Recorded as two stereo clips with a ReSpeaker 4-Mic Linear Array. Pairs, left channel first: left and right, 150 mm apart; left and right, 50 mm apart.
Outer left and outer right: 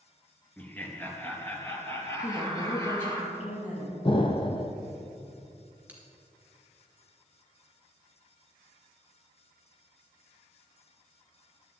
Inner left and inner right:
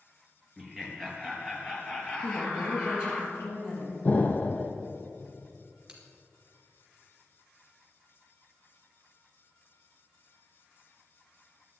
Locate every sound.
0.6 s laughter: 10° left (ahead or behind), 2.5 m; by 3.2 s 20° left (ahead or behind), 3.5 m
2.2 s a woman speaking: 55° left (ahead or behind), 4.5 m
4.0 s an explosion: 35° left (ahead or behind), 1.1 m
5.9 s a bell: 10° right (ahead or behind), 2.5 m